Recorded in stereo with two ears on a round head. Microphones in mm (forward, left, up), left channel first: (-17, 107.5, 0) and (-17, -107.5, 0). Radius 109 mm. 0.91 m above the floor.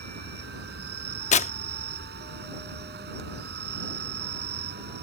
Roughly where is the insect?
Right.